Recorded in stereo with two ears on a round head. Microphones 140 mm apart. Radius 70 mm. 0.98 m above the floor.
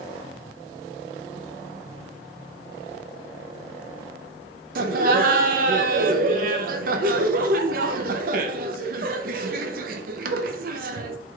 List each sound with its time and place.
4.8 s laughter: 60° right (ahead or behind), 0.6 m